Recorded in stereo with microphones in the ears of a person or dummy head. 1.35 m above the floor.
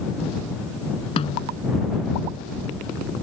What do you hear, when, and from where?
1.2 s a snare drum: 35° left (ahead or behind)